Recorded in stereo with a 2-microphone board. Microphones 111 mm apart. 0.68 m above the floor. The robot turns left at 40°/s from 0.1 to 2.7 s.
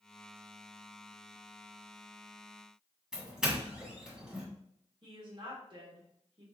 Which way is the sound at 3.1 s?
5° right (ahead or behind).